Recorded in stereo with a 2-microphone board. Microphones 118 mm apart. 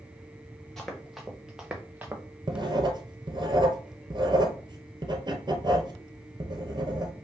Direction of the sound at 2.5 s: 40° right (ahead or behind).